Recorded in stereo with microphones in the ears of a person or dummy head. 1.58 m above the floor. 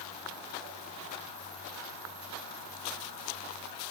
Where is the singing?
No singing in this recording.